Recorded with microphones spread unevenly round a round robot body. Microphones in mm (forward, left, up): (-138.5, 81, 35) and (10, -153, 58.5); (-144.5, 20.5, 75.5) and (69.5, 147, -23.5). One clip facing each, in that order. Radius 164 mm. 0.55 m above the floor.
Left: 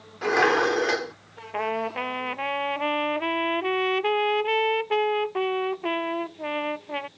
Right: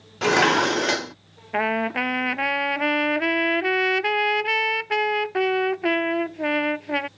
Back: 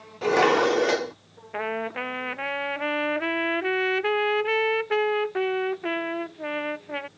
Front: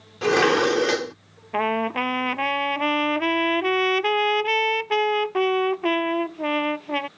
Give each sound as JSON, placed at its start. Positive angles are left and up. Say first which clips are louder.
{"t": 0.2, "sound": "dishes clattering", "louder": "right 1 dB, front 1 dB", "azimuth_deg": -20}
{"t": 1.5, "sound": "a trumpet", "louder": "right 4 dB, front 5 dB", "azimuth_deg": -20}